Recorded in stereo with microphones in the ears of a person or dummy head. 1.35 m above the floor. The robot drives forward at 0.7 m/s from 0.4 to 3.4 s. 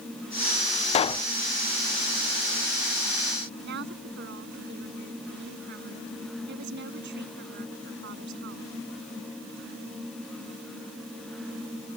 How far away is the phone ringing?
I don't hear a phone ringing.